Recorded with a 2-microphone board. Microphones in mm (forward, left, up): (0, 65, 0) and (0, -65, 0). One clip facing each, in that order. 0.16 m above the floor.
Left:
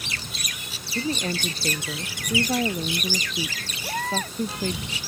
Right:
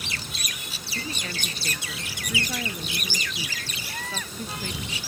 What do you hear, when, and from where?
0.9 s a woman speaking: 35° left (ahead or behind)
3.8 s a baby crying: 45° left (ahead or behind)